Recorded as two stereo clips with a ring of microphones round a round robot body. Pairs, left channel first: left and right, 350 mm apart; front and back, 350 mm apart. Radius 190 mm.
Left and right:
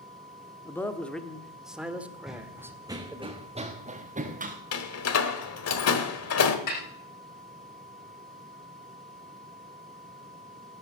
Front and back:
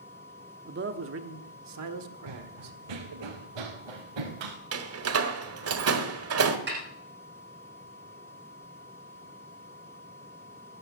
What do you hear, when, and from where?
0.7 s a man speaking: 165° left, 1.1 m; by 3.3 s 170° right, 2 m
2.3 s running footsteps: straight behind, 1.5 m; by 4.5 s 155° right, 3 m
4.7 s a door slam: 135° left, 1.5 m
6.7 s a snare drum: 120° left, 7 m